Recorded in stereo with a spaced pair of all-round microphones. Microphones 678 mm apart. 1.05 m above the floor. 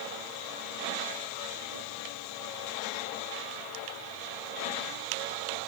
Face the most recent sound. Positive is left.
No sound to turn to.